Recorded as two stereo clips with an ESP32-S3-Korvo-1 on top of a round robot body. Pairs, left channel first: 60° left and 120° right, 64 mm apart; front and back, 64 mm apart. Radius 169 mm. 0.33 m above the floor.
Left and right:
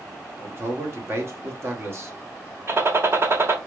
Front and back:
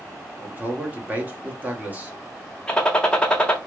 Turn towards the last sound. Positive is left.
turn(degrees=-75)